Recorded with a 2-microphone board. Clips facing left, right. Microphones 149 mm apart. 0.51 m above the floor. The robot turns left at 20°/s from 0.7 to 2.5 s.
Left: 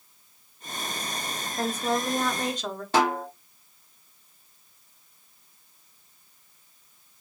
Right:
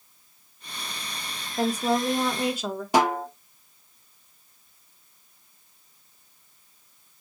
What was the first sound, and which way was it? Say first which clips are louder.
A woman speaking: right 4 dB; 15° right (ahead or behind).